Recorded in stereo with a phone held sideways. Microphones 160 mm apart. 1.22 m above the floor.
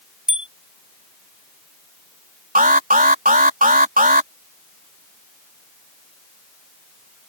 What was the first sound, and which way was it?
A bicycle bell, 5° right (ahead or behind).